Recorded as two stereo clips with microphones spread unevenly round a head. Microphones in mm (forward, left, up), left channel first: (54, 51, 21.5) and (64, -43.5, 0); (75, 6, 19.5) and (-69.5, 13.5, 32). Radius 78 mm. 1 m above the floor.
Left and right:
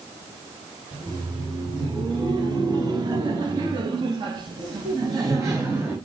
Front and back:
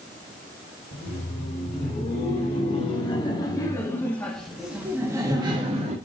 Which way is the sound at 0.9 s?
40° right.